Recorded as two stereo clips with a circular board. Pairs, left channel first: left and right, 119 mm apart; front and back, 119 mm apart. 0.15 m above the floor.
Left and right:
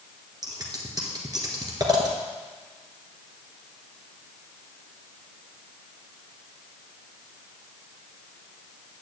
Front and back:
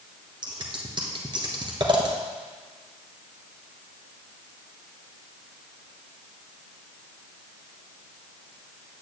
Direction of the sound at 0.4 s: 140° right.